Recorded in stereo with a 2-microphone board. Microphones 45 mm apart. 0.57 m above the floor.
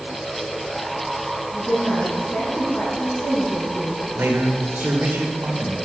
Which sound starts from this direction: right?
A man speaking, at 4.2 s.